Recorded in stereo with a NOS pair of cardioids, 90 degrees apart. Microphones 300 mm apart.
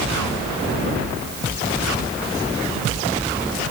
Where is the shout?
No shout in this recording.